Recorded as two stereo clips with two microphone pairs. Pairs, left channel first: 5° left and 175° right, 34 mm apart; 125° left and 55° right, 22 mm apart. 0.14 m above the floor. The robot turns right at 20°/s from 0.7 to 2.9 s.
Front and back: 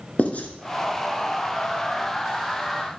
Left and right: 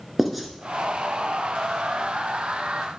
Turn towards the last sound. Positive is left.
turn(degrees=75)